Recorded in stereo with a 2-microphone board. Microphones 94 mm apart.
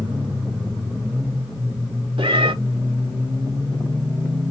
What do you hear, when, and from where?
2.2 s a cat meowing: 75° right (ahead or behind), 0.7 m